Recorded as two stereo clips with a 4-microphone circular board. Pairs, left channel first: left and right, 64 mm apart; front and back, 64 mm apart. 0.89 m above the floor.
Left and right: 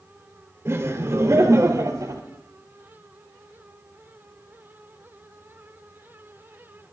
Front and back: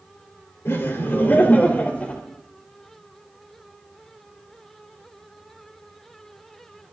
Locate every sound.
0.7 s laughter: 45° right, 2.5 m; by 2.2 s 75° right, 2.5 m